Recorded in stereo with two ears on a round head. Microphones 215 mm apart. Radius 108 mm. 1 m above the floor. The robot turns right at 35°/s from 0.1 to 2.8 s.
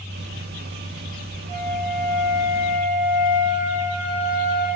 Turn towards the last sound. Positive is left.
turn(degrees=-110)